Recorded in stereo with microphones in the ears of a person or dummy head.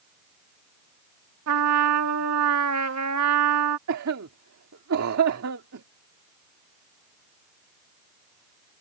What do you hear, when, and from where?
1.5 s a trumpet: 75° right (ahead or behind)
3.9 s a cough: 75° right (ahead or behind)